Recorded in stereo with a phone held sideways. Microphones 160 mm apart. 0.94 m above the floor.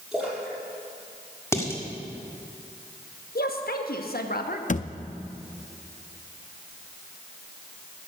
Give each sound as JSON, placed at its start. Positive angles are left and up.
{"t": 0.1, "sound": "a splash", "side_deg": 0, "distance_m": 5.0}
{"t": 1.5, "sound": "dishes clattering", "side_deg": 15, "distance_m": 1.6}
{"t": 3.4, "sound": "a woman speaking", "side_deg": 70, "distance_m": 1.2}
{"t": 4.7, "sound": "a thud", "side_deg": 50, "distance_m": 0.5}